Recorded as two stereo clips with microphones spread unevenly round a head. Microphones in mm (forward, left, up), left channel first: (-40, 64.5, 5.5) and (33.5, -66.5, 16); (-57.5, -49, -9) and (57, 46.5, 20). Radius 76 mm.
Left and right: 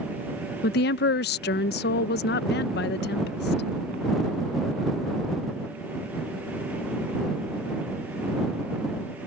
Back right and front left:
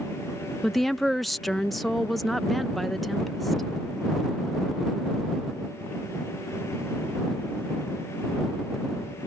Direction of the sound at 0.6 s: 135° left.